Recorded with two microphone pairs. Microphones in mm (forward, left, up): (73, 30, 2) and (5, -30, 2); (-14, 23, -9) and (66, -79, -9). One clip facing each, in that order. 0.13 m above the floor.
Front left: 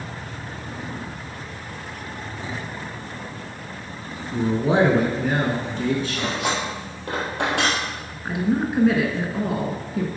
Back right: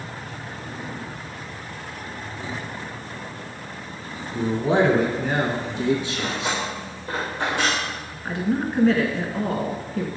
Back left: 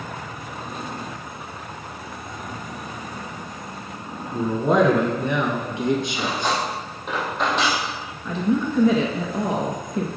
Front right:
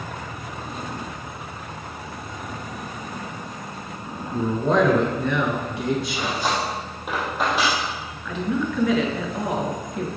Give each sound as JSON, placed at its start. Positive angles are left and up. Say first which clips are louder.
{"t": 4.3, "sound": "a man speaking", "louder": "front left 1 dB, back left 1 dB", "azimuth_deg": 50, "distance_m": 1.3}
{"t": 6.1, "sound": "cutlery clinking", "louder": "front left 2 dB, back left 1 dB", "azimuth_deg": 35, "distance_m": 2.5}
{"t": 8.2, "sound": "a woman speaking", "louder": "front left 2 dB, back left 3 dB", "azimuth_deg": 110, "distance_m": 1.2}